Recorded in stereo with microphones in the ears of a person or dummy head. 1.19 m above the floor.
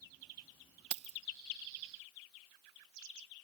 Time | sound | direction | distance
0.9 | keys jangling | 30° right (ahead or behind) | ?